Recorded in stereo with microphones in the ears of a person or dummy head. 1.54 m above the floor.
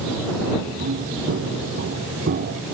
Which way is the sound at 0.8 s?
45° right (ahead or behind).